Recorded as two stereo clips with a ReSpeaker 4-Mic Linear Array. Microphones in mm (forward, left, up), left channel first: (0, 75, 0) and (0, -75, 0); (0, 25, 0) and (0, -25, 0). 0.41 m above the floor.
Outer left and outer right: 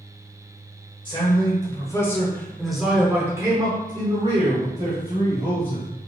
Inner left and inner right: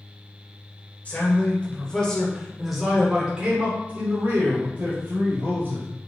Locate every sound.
1.1 s a man speaking: 30° left (ahead or behind), 1.6 m; by 5.8 s 45° right (ahead or behind), 2 m